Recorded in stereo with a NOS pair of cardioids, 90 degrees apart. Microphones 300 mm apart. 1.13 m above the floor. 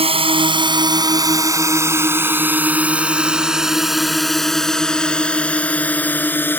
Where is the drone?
20° right; by 6.6 s 5° left.